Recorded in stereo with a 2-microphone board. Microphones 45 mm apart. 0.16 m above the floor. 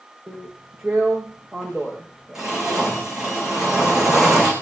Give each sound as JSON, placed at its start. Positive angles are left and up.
{"t": 0.3, "sound": "a drill", "side_deg": -15, "distance_m": 6.5}